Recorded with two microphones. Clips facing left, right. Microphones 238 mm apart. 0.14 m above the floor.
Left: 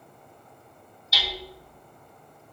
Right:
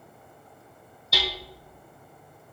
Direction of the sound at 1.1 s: 55° right (ahead or behind).